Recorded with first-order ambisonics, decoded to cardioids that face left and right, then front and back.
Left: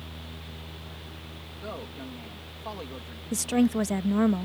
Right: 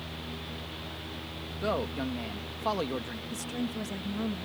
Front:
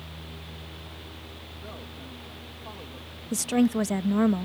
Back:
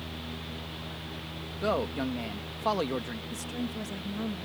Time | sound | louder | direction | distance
1.6 | a man speaking | right 8 dB, back 16 dB | 150° right | ?
3.3 | a woman speaking | left 12 dB, front 15 dB | 40° left | ?